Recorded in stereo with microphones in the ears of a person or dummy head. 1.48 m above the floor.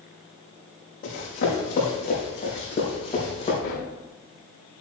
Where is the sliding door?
60° left (ahead or behind), 3.5 m.